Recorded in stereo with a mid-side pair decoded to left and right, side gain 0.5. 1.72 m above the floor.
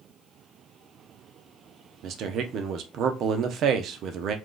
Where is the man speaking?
65° right, 0.7 m.